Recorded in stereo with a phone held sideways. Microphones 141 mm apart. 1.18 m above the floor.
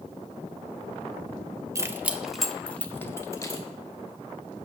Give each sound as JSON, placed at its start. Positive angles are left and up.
{"t": 1.8, "sound": "keys jangling", "side_deg": -25, "distance_m": 0.9}